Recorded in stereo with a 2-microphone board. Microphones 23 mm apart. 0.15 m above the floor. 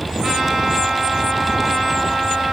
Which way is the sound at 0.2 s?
Centre (ahead or behind).